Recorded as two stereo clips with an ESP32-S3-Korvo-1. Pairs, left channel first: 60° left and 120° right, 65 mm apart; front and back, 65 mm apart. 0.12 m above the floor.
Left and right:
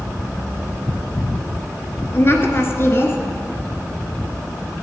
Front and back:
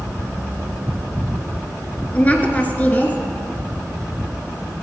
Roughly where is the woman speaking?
Ahead left.